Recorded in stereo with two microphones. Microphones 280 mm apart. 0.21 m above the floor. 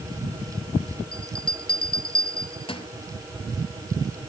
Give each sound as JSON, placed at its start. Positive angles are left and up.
{"t": 1.1, "sound": "a bell", "side_deg": 20, "distance_m": 1.1}